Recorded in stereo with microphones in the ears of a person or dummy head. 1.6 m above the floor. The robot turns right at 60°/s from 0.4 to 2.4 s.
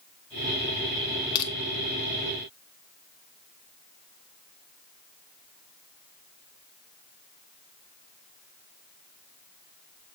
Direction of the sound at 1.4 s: 25° left (ahead or behind).